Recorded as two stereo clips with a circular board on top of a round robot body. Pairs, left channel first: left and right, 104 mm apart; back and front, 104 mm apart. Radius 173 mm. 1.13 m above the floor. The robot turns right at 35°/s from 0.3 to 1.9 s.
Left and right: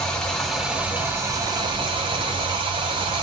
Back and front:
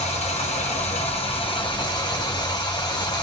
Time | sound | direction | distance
0.0 | running water | 175° left | 0.8 m